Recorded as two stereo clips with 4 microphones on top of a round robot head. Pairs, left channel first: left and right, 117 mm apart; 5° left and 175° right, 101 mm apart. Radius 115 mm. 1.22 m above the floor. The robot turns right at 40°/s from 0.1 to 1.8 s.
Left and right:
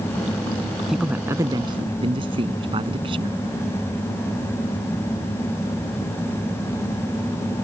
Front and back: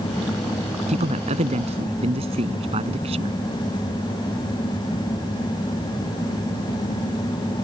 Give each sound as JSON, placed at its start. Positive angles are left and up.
{"t": 0.9, "sound": "a man speaking", "azimuth_deg": 180}